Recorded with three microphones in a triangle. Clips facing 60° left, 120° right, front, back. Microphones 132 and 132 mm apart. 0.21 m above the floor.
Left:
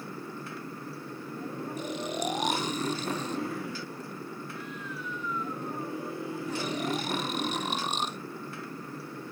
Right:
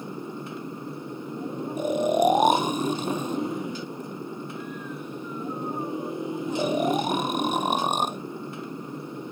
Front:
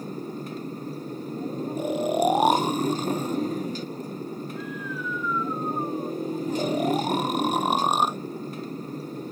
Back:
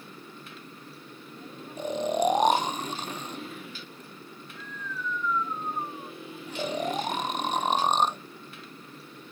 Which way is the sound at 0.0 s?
50° right.